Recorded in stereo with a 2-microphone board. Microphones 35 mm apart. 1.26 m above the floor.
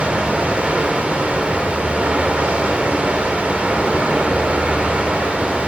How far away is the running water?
About 1.3 m.